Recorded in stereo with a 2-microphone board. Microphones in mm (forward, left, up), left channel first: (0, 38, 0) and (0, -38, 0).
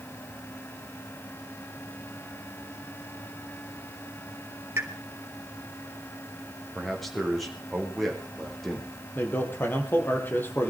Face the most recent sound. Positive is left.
turn(degrees=25)  # may be behind; listen again after turning